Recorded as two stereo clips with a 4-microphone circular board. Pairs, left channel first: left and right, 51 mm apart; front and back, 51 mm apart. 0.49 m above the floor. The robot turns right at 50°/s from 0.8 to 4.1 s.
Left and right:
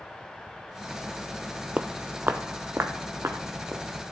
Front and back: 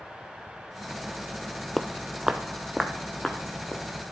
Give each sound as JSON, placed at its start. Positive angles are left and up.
{"t": 1.8, "sound": "footsteps", "azimuth_deg": -80, "distance_m": 0.5}